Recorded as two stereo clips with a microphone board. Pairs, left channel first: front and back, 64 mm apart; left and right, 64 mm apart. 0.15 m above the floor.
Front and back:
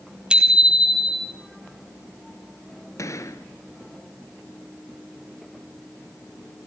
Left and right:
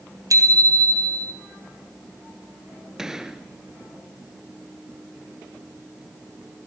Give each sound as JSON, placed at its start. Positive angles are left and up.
{"t": 0.3, "sound": "a bicycle bell", "azimuth_deg": -105, "distance_m": 3.0}
{"t": 3.0, "sound": "a gunshot", "azimuth_deg": -10, "distance_m": 1.8}